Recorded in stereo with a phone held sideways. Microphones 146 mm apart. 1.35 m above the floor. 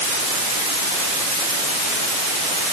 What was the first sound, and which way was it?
Only background noise.